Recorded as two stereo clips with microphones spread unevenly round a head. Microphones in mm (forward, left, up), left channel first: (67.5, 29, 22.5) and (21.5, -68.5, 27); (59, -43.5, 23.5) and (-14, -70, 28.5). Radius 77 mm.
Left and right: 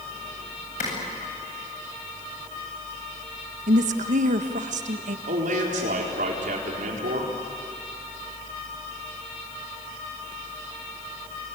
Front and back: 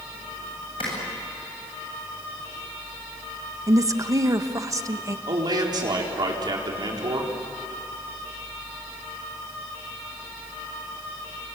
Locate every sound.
0.8 s a clap: 65° left, 8.5 m
3.7 s a woman speaking: 110° right, 1.5 m
5.3 s a man speaking: 130° right, 4 m